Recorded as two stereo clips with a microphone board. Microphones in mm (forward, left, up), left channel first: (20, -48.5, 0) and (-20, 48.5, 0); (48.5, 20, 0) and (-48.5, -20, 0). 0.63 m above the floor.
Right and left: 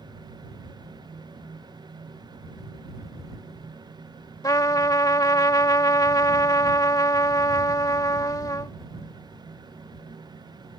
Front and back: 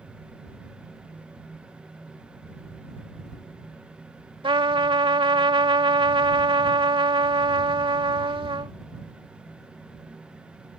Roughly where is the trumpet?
Behind right.